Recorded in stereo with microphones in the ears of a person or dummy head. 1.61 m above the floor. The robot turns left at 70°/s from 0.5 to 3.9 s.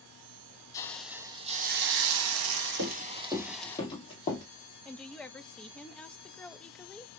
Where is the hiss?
20° left, 0.8 m; by 3.8 s 165° left, 0.8 m.